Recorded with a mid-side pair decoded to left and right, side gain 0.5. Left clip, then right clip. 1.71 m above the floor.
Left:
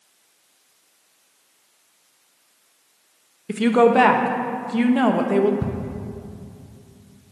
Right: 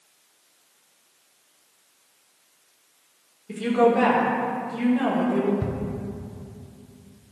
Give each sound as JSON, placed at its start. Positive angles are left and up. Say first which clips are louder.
{"t": 3.5, "sound": "a woman speaking", "louder": "left 4 dB", "azimuth_deg": 60, "distance_m": 1.0}
{"t": 5.6, "sound": "ticking", "louder": "left 1 dB", "azimuth_deg": 10, "distance_m": 1.1}